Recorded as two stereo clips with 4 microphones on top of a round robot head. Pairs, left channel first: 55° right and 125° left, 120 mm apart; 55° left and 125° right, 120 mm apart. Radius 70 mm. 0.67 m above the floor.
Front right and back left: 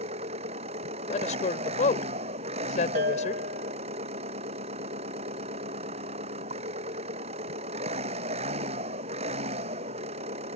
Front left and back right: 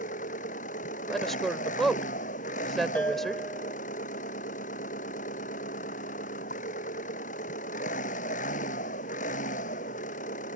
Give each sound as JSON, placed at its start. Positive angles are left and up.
{"t": 0.0, "sound": "an engine running", "azimuth_deg": 85}
{"t": 1.1, "sound": "a woman speaking", "azimuth_deg": -30}
{"t": 3.0, "sound": "a bell", "azimuth_deg": 135}